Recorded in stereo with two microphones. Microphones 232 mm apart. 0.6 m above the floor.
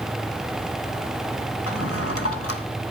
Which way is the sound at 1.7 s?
75° left (ahead or behind).